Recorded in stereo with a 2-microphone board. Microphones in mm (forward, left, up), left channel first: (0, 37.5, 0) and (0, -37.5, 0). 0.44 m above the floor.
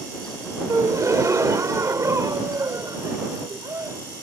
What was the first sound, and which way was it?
A gasp, 45° right (ahead or behind).